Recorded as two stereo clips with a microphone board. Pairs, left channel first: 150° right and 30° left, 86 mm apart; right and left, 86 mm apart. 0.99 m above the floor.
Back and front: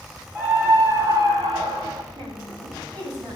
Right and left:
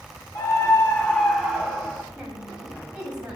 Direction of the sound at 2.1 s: 15° left.